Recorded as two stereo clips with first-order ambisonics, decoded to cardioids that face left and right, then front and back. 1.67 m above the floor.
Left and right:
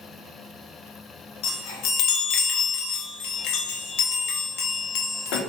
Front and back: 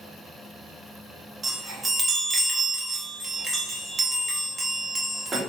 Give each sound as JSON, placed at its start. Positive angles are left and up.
{"t": 1.4, "sound": "a chime", "azimuth_deg": 105, "distance_m": 0.6}